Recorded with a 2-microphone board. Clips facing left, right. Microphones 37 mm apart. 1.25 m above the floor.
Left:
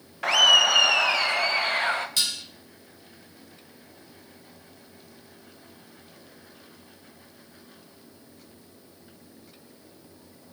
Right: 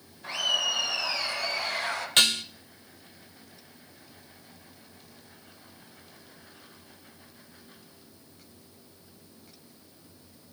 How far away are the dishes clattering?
About 0.7 m.